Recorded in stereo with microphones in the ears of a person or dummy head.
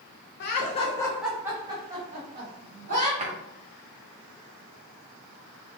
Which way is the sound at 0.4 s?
50° left (ahead or behind).